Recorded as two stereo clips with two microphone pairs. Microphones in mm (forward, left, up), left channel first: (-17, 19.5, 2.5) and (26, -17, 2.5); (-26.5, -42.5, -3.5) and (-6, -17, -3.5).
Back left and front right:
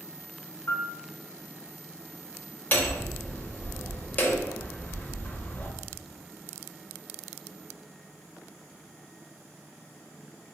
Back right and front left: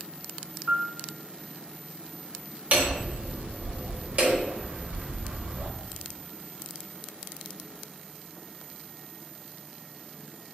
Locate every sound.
0.7 s a piano: 105° left, 0.7 m
2.7 s hammering: 80° left, 0.7 m